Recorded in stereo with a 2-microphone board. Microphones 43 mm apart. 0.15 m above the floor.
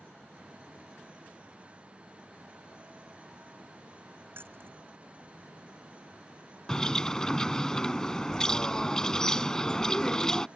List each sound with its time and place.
4.3 s keys jangling: 55° right (ahead or behind)
6.7 s a bird: 15° left (ahead or behind)